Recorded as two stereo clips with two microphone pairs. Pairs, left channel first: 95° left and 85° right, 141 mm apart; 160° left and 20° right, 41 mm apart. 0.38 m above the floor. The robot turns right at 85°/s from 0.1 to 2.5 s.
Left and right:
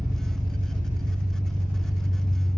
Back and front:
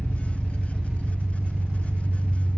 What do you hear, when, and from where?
0.0 s an engine running: 170° right, 2 m; by 2.6 s 35° left, 2 m